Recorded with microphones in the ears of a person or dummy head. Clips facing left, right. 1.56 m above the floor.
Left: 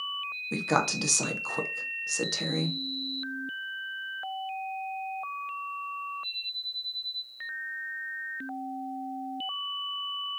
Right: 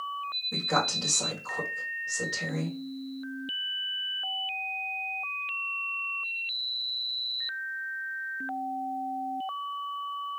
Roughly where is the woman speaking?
Left.